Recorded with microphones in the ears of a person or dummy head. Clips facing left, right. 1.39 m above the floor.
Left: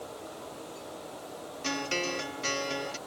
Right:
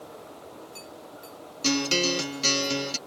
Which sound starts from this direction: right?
A guitar, at 1.6 s.